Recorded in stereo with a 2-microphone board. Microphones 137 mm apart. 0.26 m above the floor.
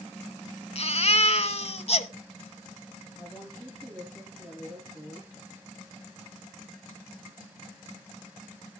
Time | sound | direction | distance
0.8 | a baby crying | 50° left (ahead or behind) | 0.8 m
3.2 | a woman speaking | 5° right (ahead or behind) | 6 m